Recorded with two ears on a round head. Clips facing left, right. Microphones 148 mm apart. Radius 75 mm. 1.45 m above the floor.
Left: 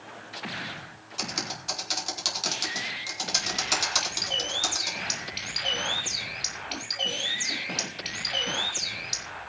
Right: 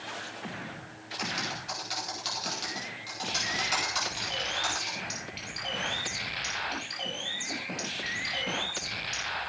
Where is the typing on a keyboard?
55° left (ahead or behind), 4.5 m.